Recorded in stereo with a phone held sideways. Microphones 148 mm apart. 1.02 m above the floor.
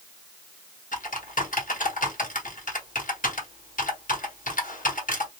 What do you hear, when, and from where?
0.9 s typing on a keyboard: 60° left (ahead or behind), 1.1 m